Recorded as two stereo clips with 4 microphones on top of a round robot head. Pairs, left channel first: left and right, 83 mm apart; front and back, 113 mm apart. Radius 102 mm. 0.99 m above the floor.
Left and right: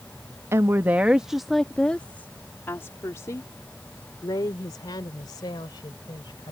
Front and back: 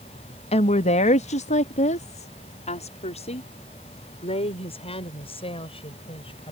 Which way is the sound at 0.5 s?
30° right.